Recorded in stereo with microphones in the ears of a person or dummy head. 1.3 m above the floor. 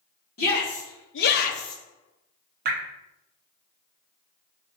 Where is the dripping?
50° right (ahead or behind), 0.5 m.